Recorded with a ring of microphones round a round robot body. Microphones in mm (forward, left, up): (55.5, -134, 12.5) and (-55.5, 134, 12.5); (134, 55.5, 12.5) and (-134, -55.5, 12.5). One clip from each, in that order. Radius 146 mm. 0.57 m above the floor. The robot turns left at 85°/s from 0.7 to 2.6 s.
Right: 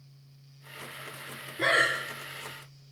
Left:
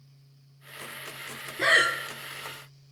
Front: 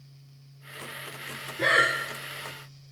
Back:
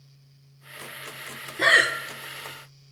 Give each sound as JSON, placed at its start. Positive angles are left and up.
{"t": 1.6, "sound": "breathing", "azimuth_deg": -175, "distance_m": 1.1}